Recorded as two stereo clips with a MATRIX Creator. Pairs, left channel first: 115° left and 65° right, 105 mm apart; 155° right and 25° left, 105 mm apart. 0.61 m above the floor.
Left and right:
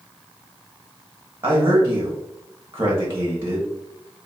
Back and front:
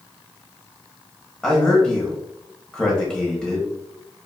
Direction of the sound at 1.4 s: 70° right.